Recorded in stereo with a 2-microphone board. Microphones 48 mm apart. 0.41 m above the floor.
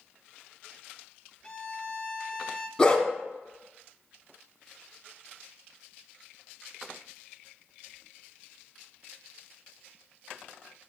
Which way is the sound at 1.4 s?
20° left (ahead or behind).